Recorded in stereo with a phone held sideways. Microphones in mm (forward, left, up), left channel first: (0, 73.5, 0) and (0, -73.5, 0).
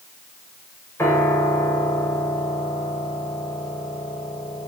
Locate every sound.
1.0 s a piano: 15° left (ahead or behind), 5 m